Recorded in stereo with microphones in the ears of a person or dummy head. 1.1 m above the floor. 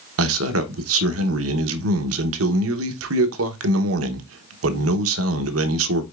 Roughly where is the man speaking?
Right.